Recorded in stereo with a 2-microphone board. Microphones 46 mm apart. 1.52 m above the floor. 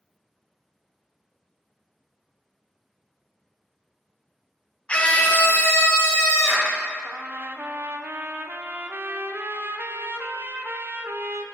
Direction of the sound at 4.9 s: 25° left (ahead or behind).